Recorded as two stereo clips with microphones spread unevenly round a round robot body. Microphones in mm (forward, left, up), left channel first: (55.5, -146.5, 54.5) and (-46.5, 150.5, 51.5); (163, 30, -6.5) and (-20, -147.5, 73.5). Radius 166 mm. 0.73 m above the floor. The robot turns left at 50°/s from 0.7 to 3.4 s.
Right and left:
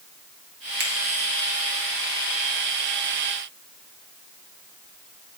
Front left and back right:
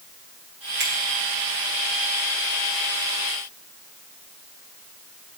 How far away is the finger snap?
About 1.1 m.